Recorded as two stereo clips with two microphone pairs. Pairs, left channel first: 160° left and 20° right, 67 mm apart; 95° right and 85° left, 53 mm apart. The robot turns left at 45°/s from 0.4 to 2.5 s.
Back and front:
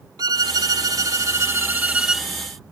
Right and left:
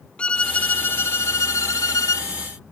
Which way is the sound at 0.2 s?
25° right.